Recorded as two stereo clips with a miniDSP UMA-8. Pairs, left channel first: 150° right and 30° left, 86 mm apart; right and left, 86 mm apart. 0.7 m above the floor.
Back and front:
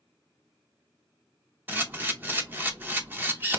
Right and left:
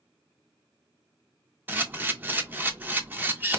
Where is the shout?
I don't hear a shout.